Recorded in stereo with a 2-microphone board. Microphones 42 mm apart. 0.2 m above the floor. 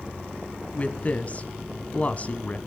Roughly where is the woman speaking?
Left.